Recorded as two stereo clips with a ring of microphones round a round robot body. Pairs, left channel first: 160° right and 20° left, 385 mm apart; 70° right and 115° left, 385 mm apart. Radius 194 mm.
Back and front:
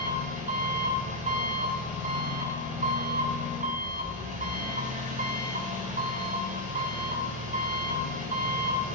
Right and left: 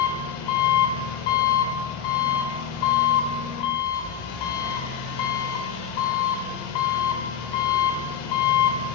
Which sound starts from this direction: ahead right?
An engine running, at 0.0 s.